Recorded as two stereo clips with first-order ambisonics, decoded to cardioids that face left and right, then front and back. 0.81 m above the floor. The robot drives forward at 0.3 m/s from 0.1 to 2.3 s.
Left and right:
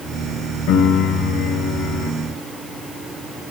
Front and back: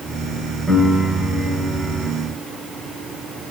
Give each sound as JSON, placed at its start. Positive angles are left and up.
{"t": 0.7, "sound": "a piano", "azimuth_deg": 90, "distance_m": 1.8}